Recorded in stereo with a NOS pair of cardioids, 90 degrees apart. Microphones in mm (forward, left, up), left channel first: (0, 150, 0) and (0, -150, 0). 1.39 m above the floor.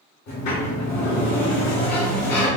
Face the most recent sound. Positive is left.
turn(degrees=60)